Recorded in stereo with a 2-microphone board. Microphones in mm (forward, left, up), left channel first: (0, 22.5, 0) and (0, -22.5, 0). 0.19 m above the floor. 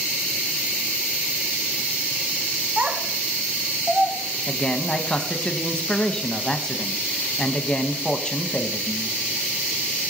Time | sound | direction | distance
2.8 | a child speaking | 40° right (ahead or behind) | 1.0 m
4.5 | a man speaking | 20° left (ahead or behind) | 1.0 m